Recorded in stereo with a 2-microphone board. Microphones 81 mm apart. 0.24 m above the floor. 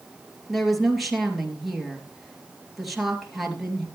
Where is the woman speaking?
Centre (ahead or behind), 3.5 m.